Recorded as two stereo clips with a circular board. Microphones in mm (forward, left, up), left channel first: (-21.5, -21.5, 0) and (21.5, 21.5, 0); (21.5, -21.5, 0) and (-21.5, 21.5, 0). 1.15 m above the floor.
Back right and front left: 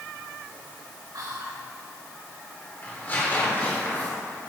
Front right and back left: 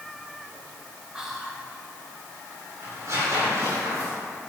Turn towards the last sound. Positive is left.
turn(degrees=170)